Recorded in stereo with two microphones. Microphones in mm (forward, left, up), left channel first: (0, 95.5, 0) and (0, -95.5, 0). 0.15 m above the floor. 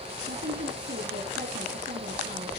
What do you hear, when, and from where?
0.3 s a woman speaking: 70° right (ahead or behind), 3.5 m